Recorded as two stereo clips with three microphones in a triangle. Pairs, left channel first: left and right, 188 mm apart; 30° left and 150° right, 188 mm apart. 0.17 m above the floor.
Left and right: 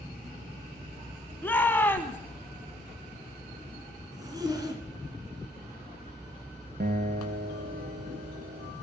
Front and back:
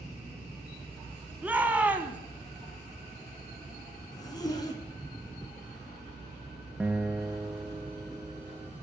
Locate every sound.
1.4 s a shout: 145° left, 1.1 m
4.1 s a zipper: 30° right, 1.9 m
6.8 s a guitar: 65° right, 0.6 m